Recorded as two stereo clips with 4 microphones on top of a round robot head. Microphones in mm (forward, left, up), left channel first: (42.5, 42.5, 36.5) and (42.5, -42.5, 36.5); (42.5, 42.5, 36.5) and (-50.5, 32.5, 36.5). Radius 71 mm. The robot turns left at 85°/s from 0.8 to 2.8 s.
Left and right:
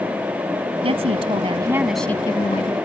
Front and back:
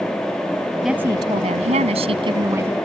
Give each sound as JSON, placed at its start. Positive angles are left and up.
{"t": 0.8, "sound": "a woman speaking", "azimuth_deg": -85}